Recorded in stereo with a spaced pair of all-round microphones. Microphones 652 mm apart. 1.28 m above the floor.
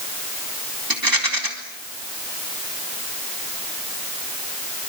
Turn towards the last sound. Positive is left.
turn(degrees=-30)  # may be behind; listen again after turning